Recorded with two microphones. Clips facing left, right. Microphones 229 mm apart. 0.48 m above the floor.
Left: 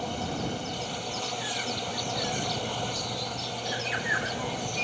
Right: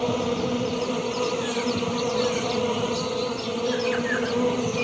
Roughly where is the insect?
Right.